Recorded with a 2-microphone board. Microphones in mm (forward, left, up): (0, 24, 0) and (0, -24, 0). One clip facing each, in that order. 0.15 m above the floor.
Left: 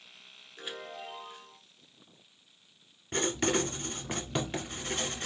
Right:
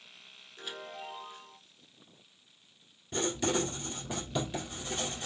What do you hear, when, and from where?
0.6 s a chime: 20° left (ahead or behind), 1.2 m
3.1 s writing: 50° left (ahead or behind), 1.1 m